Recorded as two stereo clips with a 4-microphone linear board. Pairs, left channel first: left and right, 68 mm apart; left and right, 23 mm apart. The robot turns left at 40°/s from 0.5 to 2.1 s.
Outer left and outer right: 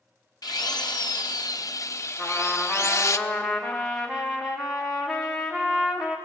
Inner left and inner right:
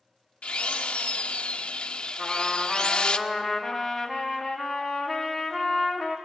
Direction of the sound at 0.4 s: 105° left.